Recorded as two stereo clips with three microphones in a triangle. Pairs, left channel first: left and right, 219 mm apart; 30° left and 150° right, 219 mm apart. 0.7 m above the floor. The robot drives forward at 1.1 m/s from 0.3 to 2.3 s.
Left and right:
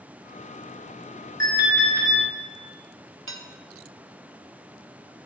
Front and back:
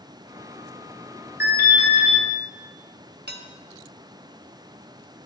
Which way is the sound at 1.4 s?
145° left.